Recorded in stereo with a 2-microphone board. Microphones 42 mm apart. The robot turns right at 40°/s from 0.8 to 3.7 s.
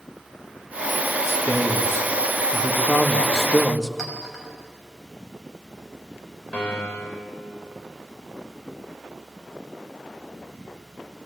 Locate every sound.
1.3 s a man speaking: 85° left, 1.7 m; by 3.9 s 175° right, 1.7 m
4.0 s a clink: 5° right (ahead or behind), 5 m
6.5 s a piano: 25° left (ahead or behind), 5.5 m